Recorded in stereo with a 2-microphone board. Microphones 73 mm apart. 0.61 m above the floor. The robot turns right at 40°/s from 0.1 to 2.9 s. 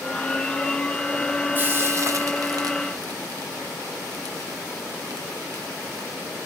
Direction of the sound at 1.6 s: 30° right (ahead or behind).